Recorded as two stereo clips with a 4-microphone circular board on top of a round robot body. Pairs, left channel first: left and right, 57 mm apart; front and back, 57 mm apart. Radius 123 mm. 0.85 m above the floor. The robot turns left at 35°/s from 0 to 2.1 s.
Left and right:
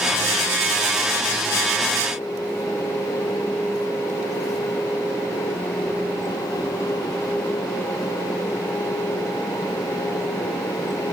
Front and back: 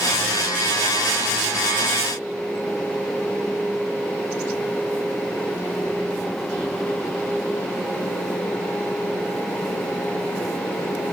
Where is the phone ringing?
I don't hear a phone ringing.